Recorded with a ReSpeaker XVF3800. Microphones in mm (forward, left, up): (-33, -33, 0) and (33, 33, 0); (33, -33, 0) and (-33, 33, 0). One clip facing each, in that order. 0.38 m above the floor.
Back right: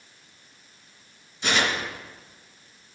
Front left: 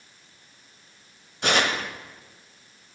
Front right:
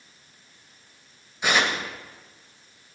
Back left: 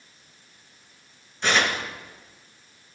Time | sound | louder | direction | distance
1.4 | tearing paper | front left 2 dB, even | 35° left | 1.0 m